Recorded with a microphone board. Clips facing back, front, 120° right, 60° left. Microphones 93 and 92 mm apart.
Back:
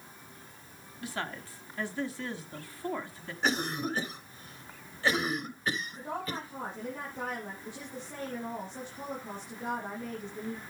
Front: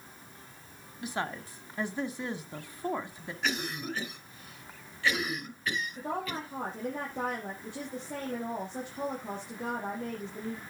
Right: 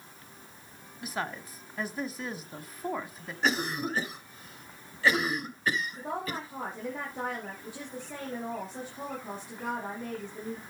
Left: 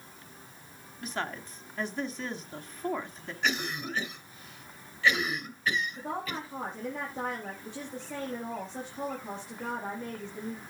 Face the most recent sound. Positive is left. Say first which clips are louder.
# front 2 dB, right 1 dB
turn(degrees=-35)